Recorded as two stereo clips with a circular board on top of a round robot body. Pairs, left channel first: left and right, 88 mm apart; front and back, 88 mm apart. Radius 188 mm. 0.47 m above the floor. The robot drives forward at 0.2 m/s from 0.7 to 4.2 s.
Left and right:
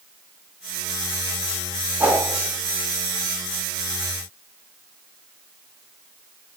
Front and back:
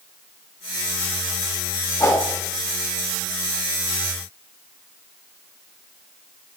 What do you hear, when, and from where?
2.0 s a whoosh: 40° right, 1.1 m